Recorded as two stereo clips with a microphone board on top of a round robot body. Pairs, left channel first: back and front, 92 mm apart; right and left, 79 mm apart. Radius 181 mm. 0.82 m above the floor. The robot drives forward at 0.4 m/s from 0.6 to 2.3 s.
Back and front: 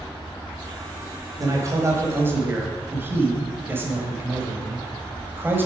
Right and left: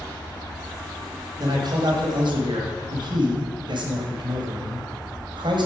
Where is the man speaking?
55° left, 1.4 m; by 5.7 s 70° left, 1.2 m.